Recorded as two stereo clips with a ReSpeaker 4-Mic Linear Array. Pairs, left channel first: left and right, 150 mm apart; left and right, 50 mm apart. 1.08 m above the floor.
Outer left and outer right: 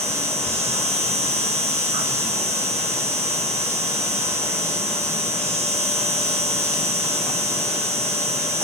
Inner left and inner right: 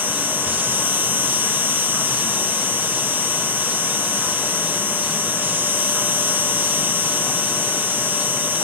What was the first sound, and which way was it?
An insect, 40° right (ahead or behind).